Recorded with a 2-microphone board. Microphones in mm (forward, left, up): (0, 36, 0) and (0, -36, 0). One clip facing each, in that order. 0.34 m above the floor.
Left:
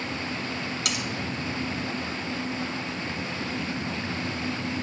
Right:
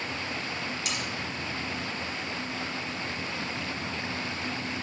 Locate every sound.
0.8 s cutlery clinking: 65° left (ahead or behind), 1.8 m